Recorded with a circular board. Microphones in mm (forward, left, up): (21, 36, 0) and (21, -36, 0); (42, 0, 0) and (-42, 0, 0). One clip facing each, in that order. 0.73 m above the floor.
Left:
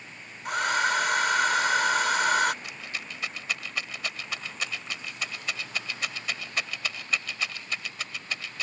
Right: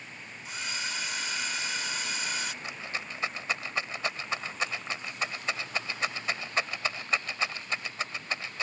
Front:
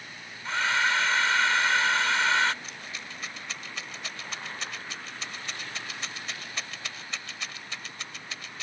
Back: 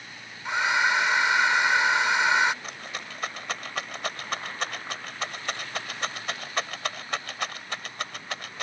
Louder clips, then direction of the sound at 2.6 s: Right 1 dB, back 3 dB; 150° right.